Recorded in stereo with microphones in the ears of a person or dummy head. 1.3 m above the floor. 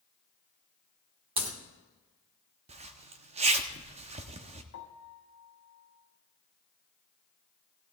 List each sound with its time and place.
1.4 s a crack: 25° right (ahead or behind), 1.3 m
2.7 s a zipper: 35° right (ahead or behind), 0.8 m
4.7 s a piano: 60° left (ahead or behind), 1.6 m